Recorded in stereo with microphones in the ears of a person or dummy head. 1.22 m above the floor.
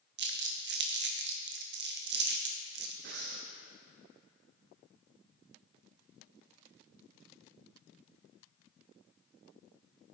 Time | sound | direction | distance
0.2 | crumpling | 50° right (ahead or behind) | 0.7 m
3.0 | breathing | 55° right (ahead or behind) | 0.7 m